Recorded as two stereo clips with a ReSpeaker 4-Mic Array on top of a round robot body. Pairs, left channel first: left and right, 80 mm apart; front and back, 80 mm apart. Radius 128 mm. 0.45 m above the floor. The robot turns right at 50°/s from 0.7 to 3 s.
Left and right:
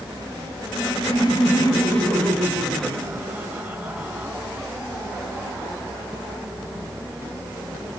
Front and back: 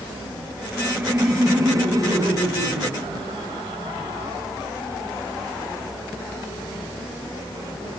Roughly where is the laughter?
Left.